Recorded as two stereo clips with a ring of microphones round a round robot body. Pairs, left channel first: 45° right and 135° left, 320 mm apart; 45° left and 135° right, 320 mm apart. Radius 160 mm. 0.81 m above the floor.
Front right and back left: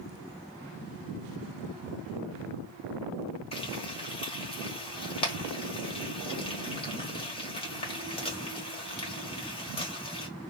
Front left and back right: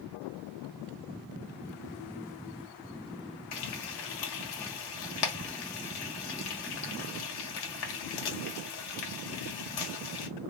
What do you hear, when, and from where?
3.5 s frying: 30° left, 1.6 m